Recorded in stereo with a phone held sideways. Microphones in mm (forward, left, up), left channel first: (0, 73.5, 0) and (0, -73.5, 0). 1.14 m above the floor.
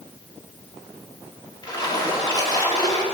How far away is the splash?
About 1.7 m.